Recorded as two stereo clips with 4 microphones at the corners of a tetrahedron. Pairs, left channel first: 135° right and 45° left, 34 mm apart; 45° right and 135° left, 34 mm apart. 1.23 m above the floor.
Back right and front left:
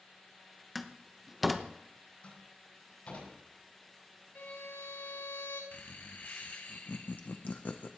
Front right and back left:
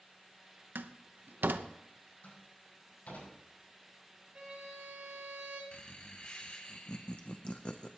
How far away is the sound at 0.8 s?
About 0.8 m.